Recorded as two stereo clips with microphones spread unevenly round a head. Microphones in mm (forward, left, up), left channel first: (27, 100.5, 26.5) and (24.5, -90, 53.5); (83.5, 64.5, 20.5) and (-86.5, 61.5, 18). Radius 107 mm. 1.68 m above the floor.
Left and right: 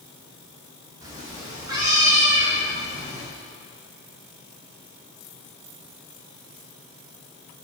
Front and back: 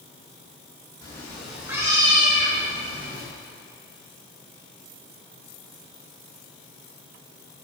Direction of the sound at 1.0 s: 50° right.